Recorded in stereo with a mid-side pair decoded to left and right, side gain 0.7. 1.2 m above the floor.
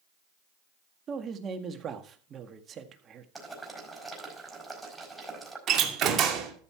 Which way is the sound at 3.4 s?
10° right.